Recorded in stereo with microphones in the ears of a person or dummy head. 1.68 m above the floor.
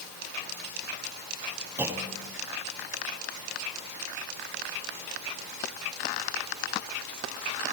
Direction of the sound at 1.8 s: 10° right (ahead or behind).